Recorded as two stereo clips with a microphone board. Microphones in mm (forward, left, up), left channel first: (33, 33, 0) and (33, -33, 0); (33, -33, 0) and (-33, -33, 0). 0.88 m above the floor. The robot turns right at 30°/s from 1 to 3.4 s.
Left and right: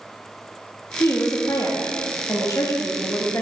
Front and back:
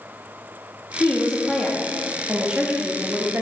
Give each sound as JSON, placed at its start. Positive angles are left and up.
{"t": 1.0, "sound": "a woman speaking", "azimuth_deg": 60, "distance_m": 1.3}